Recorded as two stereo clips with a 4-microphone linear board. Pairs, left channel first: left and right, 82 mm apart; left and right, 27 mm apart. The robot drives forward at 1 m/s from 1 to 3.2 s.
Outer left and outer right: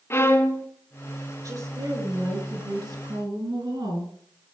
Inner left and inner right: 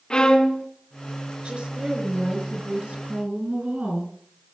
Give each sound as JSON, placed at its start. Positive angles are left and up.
{"t": 0.1, "sound": "a violin", "side_deg": 30, "distance_m": 1.4}
{"t": 1.4, "sound": "a woman speaking", "side_deg": -45, "distance_m": 5.5}